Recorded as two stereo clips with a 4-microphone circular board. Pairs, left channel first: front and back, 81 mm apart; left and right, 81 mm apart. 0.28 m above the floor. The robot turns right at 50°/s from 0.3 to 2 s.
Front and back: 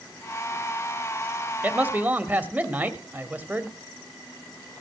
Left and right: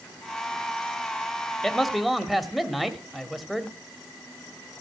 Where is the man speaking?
165° left, 1.4 m; by 3.8 s 175° right, 1.4 m.